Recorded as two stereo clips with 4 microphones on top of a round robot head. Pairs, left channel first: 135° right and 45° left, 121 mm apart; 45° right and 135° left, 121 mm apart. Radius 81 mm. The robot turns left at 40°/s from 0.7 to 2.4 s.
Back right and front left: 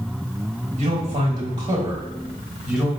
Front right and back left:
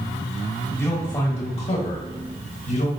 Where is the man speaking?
25° left, 1.2 m; by 2.9 s 40° right, 1.2 m.